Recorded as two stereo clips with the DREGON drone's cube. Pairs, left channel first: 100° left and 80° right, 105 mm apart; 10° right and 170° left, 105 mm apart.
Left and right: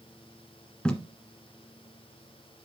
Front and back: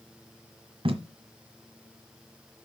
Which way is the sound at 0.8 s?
Straight behind.